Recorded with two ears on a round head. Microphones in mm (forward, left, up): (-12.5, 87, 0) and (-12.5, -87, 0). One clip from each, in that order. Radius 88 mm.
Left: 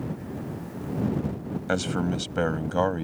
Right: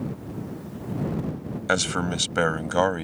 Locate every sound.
1.7 s a man speaking: 55° right (ahead or behind); by 3.0 s 65° right (ahead or behind)